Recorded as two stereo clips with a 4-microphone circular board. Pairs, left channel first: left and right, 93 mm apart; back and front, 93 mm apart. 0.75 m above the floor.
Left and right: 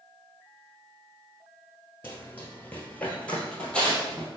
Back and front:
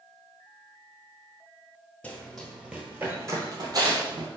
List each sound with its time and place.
2.0 s running footsteps: 125° left, 0.8 m; by 4.3 s 10° left, 1.2 m